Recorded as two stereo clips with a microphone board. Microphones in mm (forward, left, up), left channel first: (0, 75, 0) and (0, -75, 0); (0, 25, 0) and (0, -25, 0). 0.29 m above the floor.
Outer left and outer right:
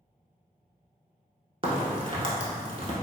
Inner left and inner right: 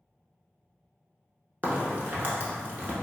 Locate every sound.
1.6 s a crack: 40° right (ahead or behind), 0.6 m